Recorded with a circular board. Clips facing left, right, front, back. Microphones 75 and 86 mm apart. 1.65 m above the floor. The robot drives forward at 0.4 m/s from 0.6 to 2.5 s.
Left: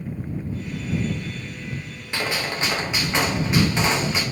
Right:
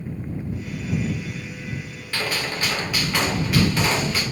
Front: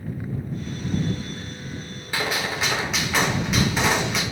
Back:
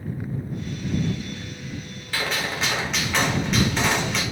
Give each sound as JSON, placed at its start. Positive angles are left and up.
{"t": 2.1, "sound": "a gunshot", "azimuth_deg": 50, "distance_m": 0.7}